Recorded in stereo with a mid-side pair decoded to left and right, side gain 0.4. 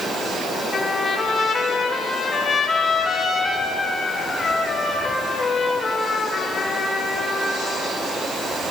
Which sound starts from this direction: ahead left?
A trumpet, at 0.7 s.